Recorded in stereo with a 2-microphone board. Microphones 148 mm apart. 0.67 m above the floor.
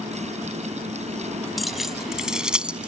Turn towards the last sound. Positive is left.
turn(degrees=-10)  # may be behind; listen again after turning